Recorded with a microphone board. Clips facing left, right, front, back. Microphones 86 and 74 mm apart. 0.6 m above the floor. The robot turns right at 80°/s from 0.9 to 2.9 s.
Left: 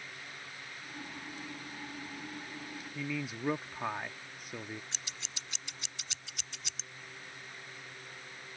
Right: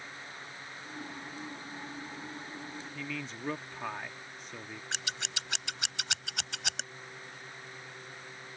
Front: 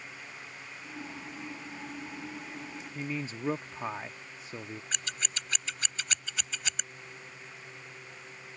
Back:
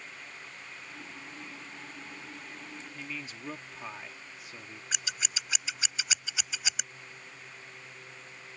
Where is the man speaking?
20° left.